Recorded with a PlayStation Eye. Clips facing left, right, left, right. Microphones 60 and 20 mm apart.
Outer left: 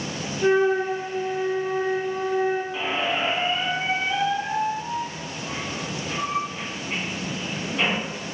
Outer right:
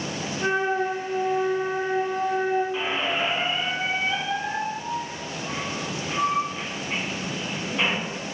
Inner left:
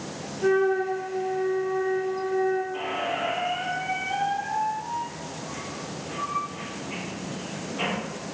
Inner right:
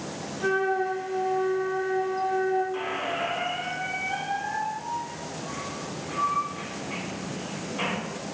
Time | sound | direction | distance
0.4 | a flute | 50° right (ahead or behind) | 1.9 m
2.7 | a squeak | 15° right (ahead or behind) | 1.4 m